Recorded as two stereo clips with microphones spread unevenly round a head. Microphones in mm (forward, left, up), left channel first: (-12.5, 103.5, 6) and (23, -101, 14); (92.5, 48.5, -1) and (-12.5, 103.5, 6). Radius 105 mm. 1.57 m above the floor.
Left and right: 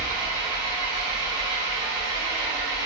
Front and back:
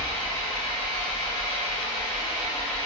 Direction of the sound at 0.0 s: 20° right.